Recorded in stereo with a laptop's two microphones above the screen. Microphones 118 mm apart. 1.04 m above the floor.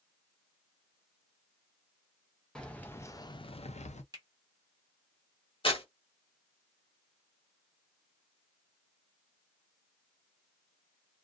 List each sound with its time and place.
2.5 s keys jangling: 5° left (ahead or behind), 0.8 m; by 4.0 s 80° left, 0.6 m
4.1 s a finger snap: 35° right (ahead or behind), 1.1 m
5.6 s tearing paper: 50° left (ahead or behind), 1.1 m